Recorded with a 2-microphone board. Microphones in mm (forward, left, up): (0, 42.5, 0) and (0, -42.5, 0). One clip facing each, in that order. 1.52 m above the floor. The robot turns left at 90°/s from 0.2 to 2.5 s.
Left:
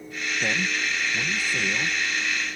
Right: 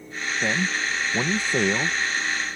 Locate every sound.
0.4 s a man speaking: 10° right; by 2.0 s 150° right